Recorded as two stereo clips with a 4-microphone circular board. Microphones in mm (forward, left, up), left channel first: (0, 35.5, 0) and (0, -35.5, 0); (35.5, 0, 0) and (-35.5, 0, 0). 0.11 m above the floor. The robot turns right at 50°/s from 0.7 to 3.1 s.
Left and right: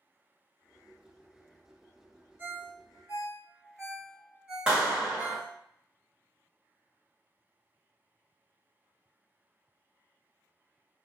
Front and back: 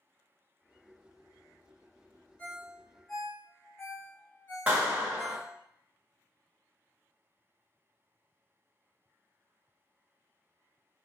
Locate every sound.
2.4 s a ringtone: 60° right, 1.3 m; by 5.5 s 25° right, 1.3 m
4.7 s a clap: 140° right, 1.1 m